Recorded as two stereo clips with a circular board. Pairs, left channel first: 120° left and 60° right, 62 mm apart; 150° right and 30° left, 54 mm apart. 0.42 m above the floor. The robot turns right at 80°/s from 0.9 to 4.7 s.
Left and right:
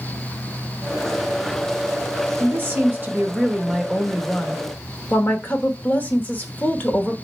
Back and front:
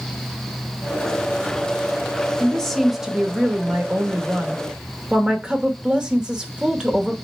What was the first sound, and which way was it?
A woman speaking, 95° right.